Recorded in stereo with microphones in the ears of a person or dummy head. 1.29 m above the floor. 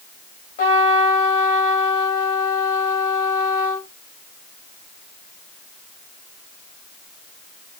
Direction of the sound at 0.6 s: 30° left (ahead or behind).